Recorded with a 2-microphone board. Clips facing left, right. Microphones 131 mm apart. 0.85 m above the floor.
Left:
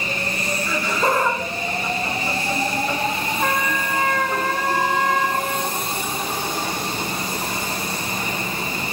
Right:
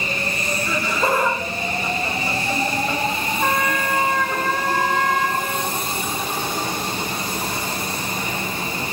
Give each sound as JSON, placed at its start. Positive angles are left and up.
{"t": 0.7, "sound": "laughter", "side_deg": -5, "distance_m": 0.5}
{"t": 3.4, "sound": "a trumpet", "side_deg": 5, "distance_m": 1.0}